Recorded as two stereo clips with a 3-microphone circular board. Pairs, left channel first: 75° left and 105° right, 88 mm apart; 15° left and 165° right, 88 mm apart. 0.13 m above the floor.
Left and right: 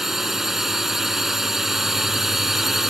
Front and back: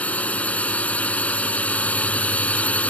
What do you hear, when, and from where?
0.0 s a drone: 25° right